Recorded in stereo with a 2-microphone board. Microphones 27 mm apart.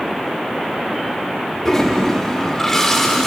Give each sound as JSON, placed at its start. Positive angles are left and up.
{"t": 1.6, "sound": "a toilet flushing", "side_deg": 15, "distance_m": 3.5}